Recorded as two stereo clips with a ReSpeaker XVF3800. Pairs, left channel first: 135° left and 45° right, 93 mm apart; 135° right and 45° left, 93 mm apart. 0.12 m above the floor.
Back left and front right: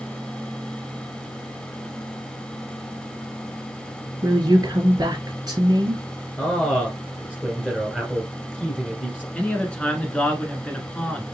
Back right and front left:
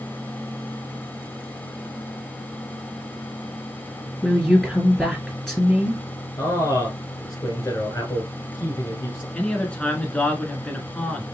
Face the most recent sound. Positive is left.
turn(degrees=180)